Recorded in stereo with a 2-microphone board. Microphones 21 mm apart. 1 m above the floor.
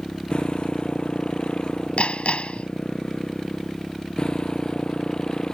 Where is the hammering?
85° left.